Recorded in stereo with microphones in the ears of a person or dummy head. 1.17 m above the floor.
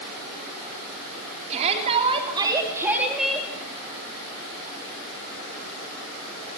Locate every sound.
1.5 s a shout: 35° right (ahead or behind), 3 m; by 3.5 s 5° left (ahead or behind), 2 m